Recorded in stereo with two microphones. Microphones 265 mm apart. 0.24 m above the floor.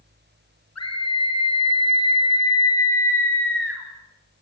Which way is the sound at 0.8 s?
70° left (ahead or behind).